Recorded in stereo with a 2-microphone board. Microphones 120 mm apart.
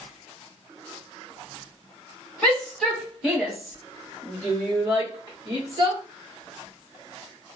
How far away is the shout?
About 1.2 m.